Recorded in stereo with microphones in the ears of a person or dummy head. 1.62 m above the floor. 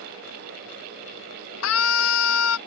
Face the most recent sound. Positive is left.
turn(degrees=80)